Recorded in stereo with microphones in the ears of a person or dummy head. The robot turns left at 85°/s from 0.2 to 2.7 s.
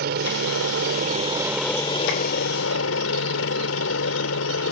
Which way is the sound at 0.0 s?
60° right.